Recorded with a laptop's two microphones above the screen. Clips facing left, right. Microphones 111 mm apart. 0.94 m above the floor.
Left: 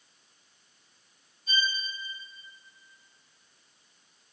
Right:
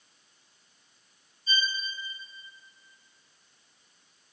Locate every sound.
1.5 s a violin: 70° left (ahead or behind), 7 m